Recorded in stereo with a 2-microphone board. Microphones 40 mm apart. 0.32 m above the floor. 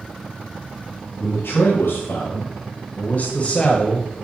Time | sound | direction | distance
1.2 | a man speaking | 60° left (ahead or behind) | 3 m